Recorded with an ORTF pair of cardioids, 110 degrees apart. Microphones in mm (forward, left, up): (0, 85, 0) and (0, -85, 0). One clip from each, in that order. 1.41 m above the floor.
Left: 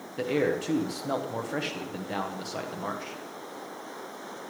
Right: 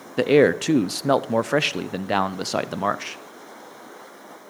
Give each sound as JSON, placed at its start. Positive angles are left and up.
{"t": 0.2, "sound": "a man speaking", "azimuth_deg": -60, "distance_m": 0.7}